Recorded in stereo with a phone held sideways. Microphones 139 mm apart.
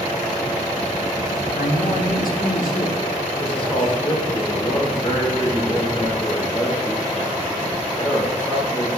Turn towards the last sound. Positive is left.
turn(degrees=35)  # may be behind; listen again after turning